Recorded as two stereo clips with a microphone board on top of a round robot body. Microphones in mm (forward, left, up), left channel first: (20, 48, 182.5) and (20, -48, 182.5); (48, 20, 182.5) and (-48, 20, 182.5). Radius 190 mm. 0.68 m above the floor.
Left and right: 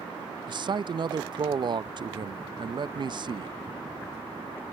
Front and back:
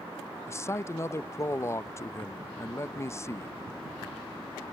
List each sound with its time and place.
0.5 s a man speaking: 60° right